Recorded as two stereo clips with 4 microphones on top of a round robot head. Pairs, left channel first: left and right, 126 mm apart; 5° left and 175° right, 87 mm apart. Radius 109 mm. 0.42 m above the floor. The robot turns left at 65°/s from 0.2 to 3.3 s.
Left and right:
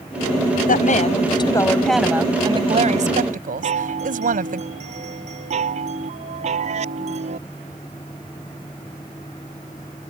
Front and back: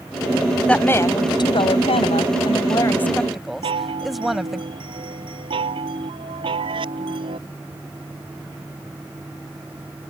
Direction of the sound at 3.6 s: 135° right.